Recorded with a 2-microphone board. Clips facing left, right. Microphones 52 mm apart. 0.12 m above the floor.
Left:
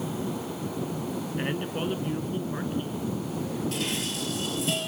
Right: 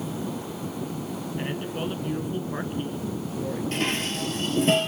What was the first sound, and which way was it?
A man speaking, 20° left (ahead or behind).